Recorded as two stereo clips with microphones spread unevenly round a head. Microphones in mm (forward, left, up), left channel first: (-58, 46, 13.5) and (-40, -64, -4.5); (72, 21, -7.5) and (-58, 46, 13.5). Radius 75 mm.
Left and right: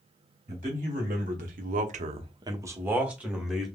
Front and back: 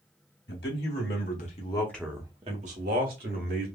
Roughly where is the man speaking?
Ahead right.